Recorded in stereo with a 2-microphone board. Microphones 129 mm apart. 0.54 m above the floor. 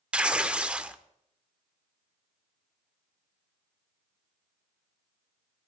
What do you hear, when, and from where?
0.1 s tearing paper: 10° right (ahead or behind), 0.6 m